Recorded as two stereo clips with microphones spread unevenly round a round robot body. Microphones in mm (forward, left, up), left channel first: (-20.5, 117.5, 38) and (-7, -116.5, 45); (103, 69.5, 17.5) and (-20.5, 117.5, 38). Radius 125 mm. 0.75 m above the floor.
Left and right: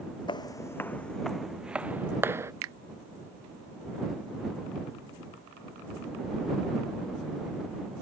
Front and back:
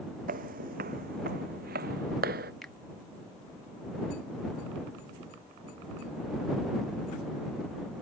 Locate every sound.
0.3 s footsteps: 165° left; by 2.5 s 165° right
2.6 s a finger snap: 105° right